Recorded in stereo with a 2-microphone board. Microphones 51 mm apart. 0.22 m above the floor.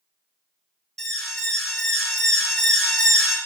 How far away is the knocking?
No knocking in this recording.